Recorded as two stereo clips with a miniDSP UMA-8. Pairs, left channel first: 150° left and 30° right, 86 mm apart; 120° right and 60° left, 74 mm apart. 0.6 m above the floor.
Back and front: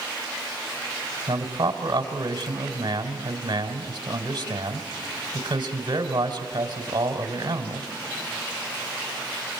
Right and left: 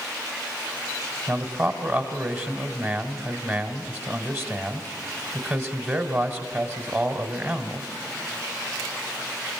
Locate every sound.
1.3 s a man speaking: straight ahead, 2 m